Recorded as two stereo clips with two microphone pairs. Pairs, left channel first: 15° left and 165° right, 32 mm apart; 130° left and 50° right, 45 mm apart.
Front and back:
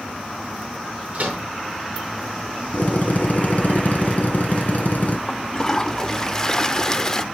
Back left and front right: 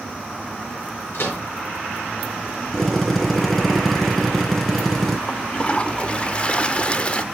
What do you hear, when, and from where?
1.1 s a microwave: 150° left, 7 m
2.7 s a drill: 45° left, 2.5 m
5.3 s a toilet flushing: 75° left, 0.7 m